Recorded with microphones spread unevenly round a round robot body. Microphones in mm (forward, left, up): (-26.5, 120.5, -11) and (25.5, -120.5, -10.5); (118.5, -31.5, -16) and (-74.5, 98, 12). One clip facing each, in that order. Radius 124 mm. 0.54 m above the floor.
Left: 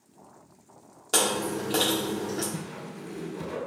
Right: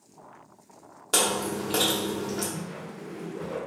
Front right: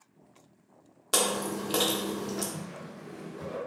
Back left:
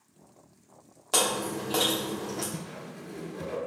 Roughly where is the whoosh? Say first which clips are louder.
Even, back left 1 dB; behind left.